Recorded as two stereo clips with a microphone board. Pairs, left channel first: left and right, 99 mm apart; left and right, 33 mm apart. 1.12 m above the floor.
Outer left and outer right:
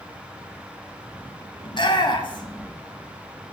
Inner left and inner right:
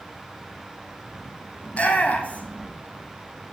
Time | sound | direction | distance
1.6 | a shout | 45° left (ahead or behind) | 2 m